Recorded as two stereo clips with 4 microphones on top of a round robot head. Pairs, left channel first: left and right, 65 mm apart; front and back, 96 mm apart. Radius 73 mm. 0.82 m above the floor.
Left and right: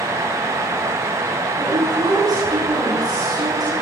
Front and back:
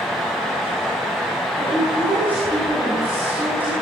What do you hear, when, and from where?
1.6 s a woman speaking: 110° right, 8 m